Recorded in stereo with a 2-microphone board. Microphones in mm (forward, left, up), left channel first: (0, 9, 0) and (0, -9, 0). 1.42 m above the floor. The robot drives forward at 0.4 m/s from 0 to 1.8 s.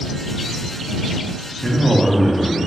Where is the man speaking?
10° right (ahead or behind), 0.7 m; by 2.6 s 15° right (ahead or behind), 0.6 m.